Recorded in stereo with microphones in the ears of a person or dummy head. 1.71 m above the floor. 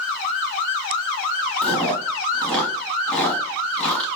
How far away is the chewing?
About 0.9 m.